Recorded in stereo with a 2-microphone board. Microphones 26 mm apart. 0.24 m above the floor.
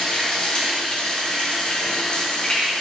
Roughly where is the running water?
Left.